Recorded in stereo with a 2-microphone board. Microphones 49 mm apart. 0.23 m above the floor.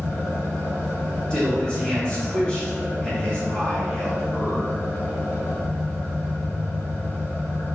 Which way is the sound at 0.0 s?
65° left (ahead or behind).